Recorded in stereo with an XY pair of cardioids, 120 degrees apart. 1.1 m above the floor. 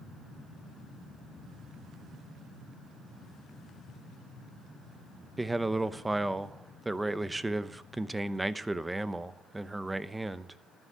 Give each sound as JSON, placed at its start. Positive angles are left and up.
{"t": 5.4, "sound": "a man speaking", "azimuth_deg": -10, "distance_m": 0.7}